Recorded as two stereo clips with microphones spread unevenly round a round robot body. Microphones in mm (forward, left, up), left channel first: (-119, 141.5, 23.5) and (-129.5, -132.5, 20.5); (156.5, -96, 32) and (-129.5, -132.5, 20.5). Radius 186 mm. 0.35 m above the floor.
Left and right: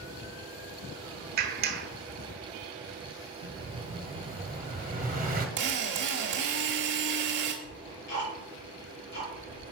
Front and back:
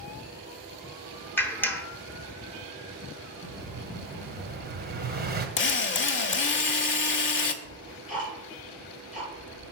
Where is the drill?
40° right, 0.9 m.